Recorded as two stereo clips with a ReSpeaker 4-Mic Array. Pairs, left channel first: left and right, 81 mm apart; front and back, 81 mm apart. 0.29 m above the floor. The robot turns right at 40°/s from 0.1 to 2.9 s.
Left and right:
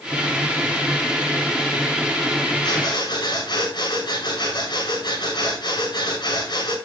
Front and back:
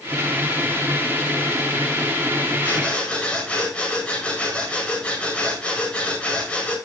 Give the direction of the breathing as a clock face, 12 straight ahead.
10 o'clock.